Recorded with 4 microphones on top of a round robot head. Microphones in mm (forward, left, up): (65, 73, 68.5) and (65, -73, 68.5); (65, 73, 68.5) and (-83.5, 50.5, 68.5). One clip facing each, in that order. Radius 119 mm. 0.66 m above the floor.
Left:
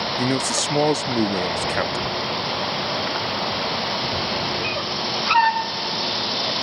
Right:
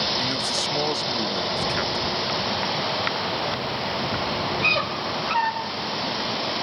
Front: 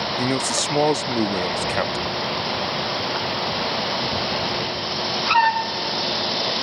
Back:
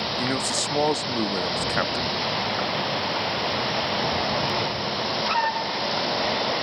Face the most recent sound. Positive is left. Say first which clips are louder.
# left 6 dB, front 4 dB
turn(degrees=75)